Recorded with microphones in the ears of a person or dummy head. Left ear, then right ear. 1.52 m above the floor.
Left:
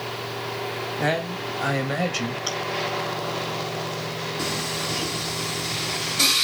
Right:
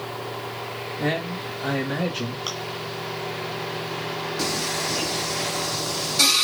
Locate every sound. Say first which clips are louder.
1.0 s a man speaking: left 1 dB; 35° left (ahead or behind), 2.5 m; by 2.4 s 45° left (ahead or behind), 1.7 m
2.5 s chewing: left 1 dB; centre (ahead or behind), 2.5 m
4.4 s singing: right 2 dB; 25° right (ahead or behind), 2 m